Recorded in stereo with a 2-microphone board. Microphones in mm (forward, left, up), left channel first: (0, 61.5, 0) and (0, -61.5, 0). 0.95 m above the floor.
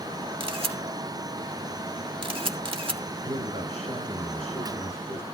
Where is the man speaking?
65° right (ahead or behind), 5 m.